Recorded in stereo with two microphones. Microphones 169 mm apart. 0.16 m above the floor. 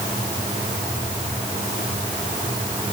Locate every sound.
Only background noise.